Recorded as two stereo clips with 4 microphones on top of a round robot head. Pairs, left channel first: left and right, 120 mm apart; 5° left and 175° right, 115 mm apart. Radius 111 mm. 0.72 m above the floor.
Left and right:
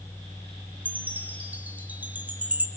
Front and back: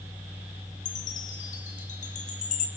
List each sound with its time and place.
0.8 s a chime: 15° right, 2.5 m